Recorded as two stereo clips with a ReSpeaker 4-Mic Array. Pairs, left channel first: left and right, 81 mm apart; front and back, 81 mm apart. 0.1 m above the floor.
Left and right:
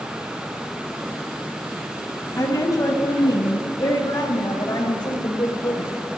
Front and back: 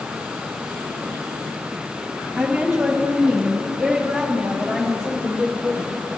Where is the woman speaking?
100° left, 2.5 m; by 6.0 s 80° left, 4.5 m.